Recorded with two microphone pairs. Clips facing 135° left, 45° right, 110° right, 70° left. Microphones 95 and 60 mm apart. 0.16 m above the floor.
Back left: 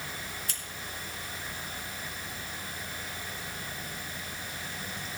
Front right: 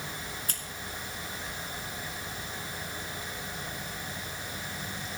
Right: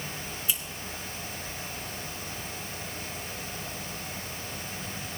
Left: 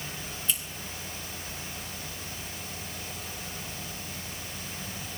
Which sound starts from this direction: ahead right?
Scissors, at 0.5 s.